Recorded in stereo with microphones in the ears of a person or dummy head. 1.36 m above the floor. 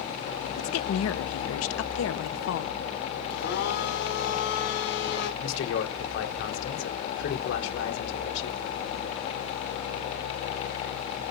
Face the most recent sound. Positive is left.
turn(degrees=70)  # may be behind; listen again after turning